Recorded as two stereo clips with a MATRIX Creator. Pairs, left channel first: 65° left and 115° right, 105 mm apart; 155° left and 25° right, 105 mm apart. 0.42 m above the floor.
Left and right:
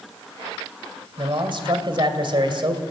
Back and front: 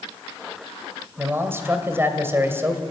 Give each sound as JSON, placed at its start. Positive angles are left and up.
{"t": 1.2, "sound": "a man speaking", "azimuth_deg": -85, "distance_m": 2.0}